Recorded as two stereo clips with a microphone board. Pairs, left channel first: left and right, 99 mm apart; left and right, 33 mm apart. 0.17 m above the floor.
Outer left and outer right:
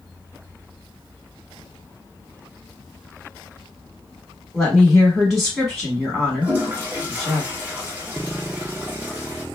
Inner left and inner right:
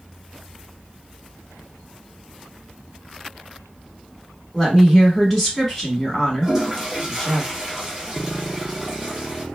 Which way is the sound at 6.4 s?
20° right (ahead or behind).